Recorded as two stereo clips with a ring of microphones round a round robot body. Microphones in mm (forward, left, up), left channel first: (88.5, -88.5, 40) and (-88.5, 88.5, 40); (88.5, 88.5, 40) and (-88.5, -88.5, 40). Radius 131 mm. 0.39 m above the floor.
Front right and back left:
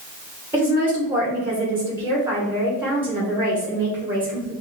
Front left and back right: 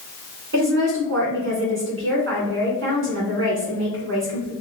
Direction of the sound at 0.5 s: 145° right.